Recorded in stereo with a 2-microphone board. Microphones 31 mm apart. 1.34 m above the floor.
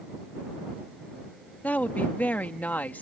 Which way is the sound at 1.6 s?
60° left (ahead or behind).